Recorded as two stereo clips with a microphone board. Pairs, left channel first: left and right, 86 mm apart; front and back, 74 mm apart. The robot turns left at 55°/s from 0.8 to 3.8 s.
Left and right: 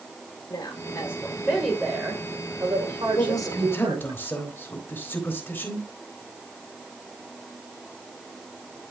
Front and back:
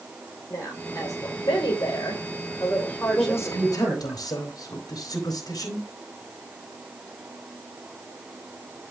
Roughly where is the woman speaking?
Ahead left.